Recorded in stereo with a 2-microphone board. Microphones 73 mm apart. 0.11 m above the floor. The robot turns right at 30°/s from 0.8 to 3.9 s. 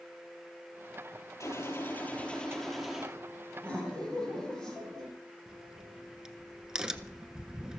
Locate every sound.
1.4 s a gunshot: 135° left, 7.5 m; by 3.1 s 175° right, 7.5 m
3.6 s laughter: 20° left (ahead or behind), 5.5 m; by 5.1 s 10° left (ahead or behind), 5.5 m
5.5 s a crack: 10° right (ahead or behind), 0.8 m